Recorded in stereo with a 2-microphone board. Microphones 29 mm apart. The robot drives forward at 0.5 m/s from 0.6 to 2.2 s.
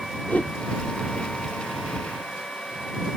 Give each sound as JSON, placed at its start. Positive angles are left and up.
{"t": 0.3, "sound": "a whoosh", "side_deg": 70}